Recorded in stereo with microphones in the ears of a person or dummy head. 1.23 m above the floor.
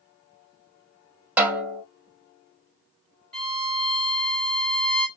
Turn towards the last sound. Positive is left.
turn(degrees=5)  # may be behind; listen again after turning